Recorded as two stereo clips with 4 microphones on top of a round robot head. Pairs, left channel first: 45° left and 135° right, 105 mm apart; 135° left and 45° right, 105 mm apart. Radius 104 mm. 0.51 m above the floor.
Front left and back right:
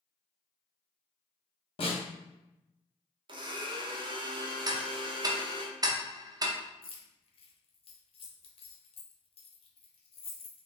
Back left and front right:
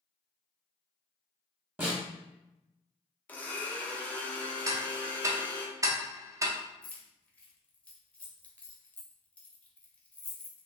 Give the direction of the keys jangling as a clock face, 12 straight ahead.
10 o'clock.